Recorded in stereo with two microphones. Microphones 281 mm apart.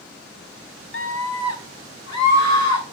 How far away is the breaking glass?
No breaking glass in this recording.